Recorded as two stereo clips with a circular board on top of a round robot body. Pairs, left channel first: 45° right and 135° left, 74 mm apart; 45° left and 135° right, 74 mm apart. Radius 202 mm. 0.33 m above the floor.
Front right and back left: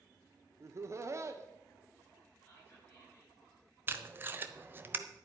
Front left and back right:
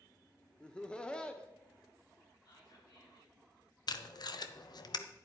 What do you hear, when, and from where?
0.6 s laughter: 120° left, 1.2 m
2.5 s whispering: 20° left, 8.5 m
3.9 s tape being pulled: 75° left, 1.0 m